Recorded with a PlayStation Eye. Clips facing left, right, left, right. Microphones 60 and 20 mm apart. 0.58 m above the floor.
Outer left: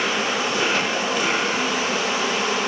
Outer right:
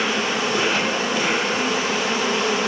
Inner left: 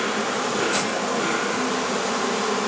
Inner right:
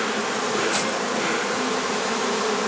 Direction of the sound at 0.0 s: 60° right (ahead or behind).